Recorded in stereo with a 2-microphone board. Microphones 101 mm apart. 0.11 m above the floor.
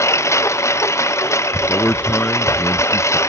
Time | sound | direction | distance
0.0 | a lawn mower | 30° left (ahead or behind) | ?
1.7 | a man speaking | 15° left (ahead or behind) | ?